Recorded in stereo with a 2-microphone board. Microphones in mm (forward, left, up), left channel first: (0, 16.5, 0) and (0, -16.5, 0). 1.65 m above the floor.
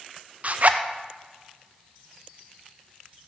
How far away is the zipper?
About 0.5 m.